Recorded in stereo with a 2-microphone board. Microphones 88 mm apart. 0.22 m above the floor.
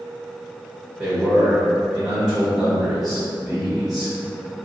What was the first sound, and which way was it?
A man speaking, centre (ahead or behind).